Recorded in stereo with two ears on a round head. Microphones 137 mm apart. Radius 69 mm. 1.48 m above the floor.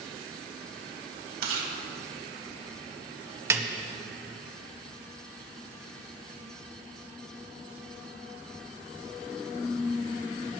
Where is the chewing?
65° right (ahead or behind), 2.5 m.